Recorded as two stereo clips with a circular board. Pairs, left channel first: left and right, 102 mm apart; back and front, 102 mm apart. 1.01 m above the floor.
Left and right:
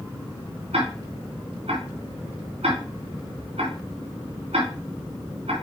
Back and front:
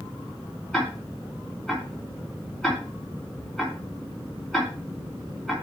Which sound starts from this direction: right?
Ticking, at 0.7 s.